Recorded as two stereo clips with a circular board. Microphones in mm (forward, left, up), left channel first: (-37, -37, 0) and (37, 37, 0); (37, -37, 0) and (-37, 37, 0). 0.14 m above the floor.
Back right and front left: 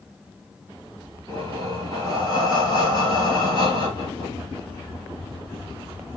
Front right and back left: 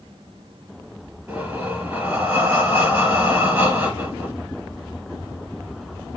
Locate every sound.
1.3 s breathing: 155° right, 2.5 m